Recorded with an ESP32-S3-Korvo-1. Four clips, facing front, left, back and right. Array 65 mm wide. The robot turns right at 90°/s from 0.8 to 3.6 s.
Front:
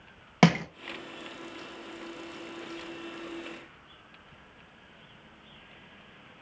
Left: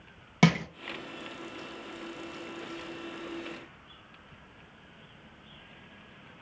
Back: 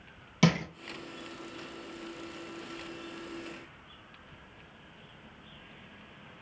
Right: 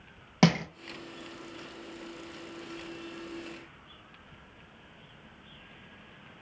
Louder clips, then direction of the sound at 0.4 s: Even, front 4 dB; 10° right.